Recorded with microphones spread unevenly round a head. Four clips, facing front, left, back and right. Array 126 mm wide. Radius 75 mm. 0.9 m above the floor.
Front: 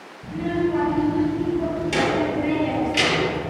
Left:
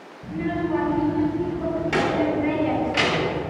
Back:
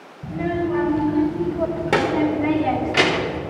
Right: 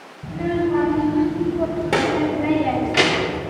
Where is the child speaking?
170° right, 4 m; by 3.4 s 130° right, 1.7 m.